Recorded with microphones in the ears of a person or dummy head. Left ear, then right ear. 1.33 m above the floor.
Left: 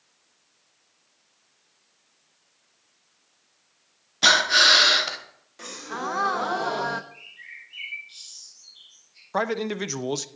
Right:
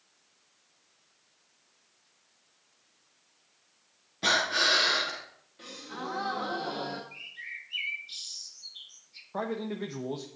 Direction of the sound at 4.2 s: 40° left (ahead or behind).